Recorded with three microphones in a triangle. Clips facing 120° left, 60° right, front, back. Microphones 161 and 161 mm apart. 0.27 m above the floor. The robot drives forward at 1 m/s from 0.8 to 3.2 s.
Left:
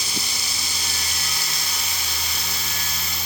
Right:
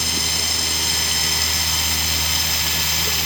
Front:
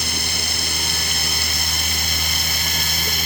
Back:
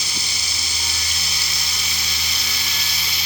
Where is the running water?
35° right; by 3.3 s 40° right.